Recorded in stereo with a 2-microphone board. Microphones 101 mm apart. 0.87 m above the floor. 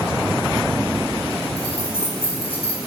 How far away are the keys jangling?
About 4.5 m.